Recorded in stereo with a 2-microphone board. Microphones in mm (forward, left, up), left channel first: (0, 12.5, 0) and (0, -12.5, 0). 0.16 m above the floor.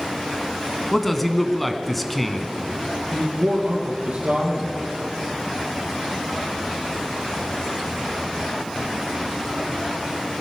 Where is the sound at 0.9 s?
5° left (ahead or behind), 1.2 m.